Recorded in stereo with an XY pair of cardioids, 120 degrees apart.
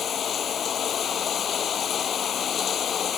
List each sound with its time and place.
0.0 s running water: 45° left